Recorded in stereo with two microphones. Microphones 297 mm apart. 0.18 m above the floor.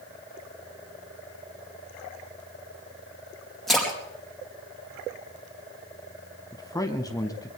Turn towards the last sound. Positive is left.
turn(degrees=10)  # may be behind; listen again after turning